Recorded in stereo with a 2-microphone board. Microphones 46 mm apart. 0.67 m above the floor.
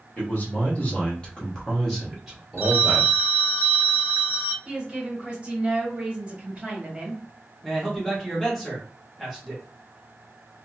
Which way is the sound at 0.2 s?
35° left (ahead or behind).